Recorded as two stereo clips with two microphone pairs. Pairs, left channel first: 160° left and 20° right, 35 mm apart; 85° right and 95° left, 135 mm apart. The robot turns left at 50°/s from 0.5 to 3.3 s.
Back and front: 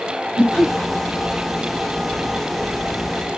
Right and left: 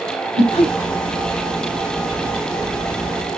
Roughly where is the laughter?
Right.